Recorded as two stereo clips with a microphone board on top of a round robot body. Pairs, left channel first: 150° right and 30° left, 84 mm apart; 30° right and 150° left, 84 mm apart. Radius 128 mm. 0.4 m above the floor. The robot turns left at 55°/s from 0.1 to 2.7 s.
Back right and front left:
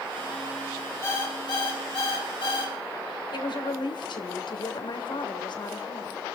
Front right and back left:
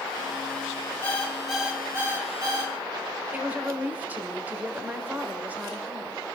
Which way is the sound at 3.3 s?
140° right.